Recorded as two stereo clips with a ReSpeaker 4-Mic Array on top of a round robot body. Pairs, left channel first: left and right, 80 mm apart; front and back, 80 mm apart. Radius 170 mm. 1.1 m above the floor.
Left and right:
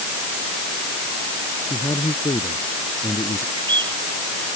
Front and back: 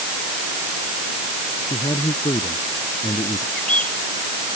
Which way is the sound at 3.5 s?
75° right.